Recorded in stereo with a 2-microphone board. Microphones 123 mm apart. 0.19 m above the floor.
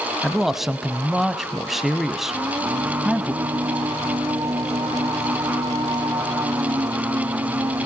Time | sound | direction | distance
0.2 | a man speaking | centre (ahead or behind) | 1.1 m
2.3 | singing | 35° right (ahead or behind) | 0.7 m